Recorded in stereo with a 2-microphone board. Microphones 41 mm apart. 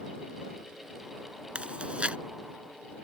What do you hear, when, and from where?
1.6 s chewing: 30° right (ahead or behind)